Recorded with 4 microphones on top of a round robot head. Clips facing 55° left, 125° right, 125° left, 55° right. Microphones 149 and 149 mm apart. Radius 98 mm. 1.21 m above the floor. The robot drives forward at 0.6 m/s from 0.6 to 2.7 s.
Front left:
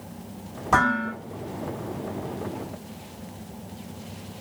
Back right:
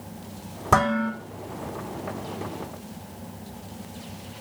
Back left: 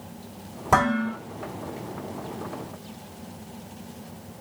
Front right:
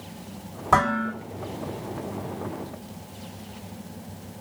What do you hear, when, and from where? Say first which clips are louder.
0.7 s dishes clattering: back right 2 dB, back left 1 dB; 160° right, 3 m